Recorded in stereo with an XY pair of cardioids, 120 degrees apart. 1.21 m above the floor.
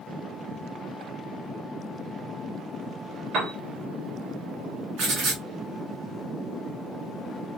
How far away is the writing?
About 3 m.